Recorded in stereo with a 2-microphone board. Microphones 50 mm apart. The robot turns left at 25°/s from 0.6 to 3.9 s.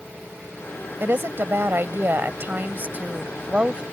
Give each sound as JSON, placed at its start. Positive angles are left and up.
{"t": 1.0, "sound": "a woman speaking", "azimuth_deg": -80}